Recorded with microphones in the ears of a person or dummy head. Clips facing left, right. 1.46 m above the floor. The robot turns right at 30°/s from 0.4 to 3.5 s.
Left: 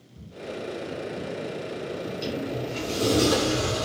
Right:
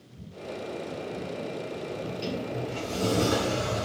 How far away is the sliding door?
About 2.5 m.